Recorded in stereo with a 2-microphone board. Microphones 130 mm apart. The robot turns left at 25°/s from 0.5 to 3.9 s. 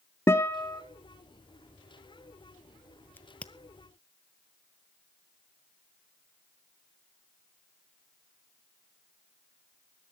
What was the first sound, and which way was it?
A guitar, 20° left (ahead or behind).